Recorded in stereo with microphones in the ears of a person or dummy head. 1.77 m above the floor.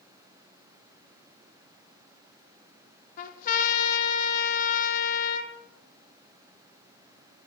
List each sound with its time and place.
3.2 s a trumpet: 50° left (ahead or behind), 1.4 m